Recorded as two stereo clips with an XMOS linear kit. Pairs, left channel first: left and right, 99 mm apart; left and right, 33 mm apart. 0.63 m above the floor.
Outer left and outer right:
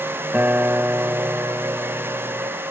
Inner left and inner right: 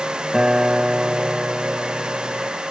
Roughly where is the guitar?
Centre.